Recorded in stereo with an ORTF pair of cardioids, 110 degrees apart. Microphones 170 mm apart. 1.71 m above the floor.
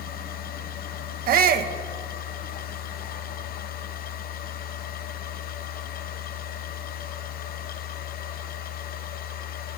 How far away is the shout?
About 2 m.